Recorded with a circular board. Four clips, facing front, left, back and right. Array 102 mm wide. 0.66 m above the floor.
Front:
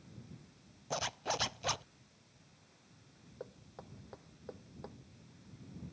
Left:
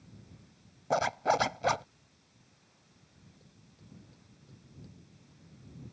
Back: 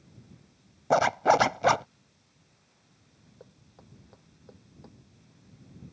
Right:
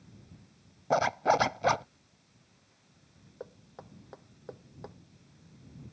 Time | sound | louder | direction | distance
0.9 | a zipper | right 2 dB, back 17 dB | 170° right | ?
3.4 | knocking | right 13 dB, front 5 dB | 75° right | ?